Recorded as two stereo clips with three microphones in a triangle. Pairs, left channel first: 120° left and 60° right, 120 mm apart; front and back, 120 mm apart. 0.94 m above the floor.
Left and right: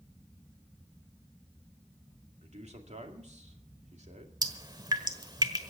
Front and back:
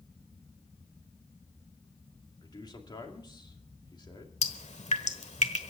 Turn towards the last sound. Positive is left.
turn(degrees=-10)